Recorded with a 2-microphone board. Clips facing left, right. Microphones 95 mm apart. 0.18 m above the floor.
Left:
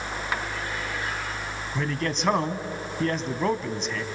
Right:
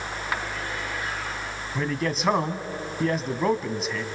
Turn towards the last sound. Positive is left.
turn(degrees=-5)  # may be behind; listen again after turning